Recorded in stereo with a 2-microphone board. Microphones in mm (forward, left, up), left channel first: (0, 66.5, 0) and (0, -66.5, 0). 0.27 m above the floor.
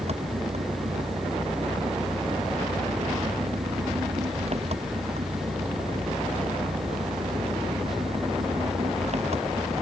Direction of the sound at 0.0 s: 55° right (ahead or behind).